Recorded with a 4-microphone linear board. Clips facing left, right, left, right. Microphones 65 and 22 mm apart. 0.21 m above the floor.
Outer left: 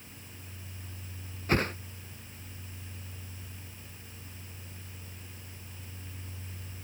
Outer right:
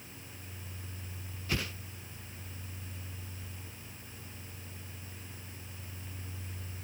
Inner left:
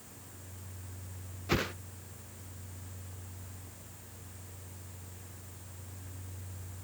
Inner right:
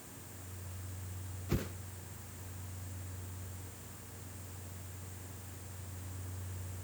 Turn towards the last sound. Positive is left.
turn(degrees=45)  # may be behind; listen again after turning